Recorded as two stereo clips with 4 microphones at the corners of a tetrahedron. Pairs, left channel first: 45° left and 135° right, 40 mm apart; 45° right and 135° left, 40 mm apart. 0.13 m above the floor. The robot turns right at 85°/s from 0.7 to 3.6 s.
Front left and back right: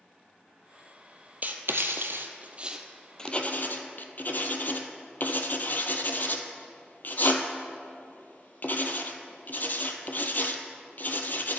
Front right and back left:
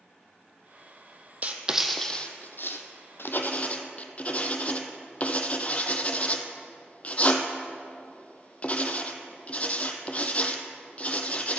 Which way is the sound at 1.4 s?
175° right.